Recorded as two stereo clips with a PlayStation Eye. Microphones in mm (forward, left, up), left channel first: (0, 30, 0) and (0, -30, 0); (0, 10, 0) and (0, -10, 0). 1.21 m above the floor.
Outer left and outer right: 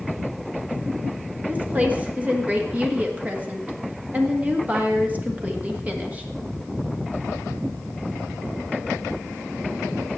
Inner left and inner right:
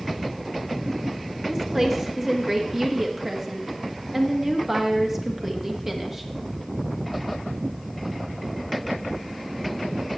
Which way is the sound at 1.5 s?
20° right (ahead or behind).